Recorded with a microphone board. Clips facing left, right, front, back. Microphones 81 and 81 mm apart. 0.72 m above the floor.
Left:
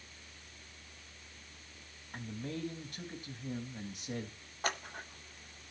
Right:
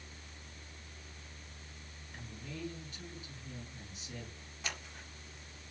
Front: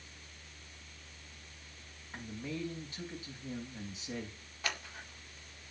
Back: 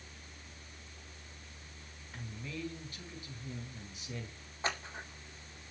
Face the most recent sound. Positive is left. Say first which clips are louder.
# left 7 dB, back 3 dB
turn(degrees=120)